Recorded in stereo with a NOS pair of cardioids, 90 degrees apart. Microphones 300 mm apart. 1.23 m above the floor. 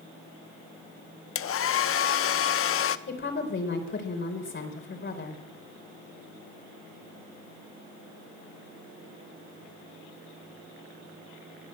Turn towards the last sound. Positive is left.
turn(degrees=40)